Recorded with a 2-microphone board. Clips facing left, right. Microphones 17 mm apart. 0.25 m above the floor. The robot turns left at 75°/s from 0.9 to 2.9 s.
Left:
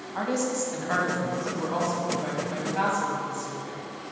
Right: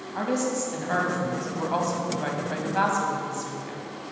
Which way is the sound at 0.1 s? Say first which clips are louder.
Right 1 dB; 10° left (ahead or behind).